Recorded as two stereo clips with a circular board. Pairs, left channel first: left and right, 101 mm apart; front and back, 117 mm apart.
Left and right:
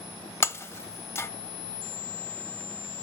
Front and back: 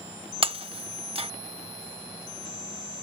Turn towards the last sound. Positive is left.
turn(degrees=150)